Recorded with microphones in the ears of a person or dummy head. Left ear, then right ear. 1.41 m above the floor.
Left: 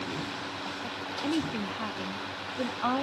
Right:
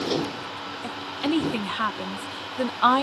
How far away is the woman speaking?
About 0.7 m.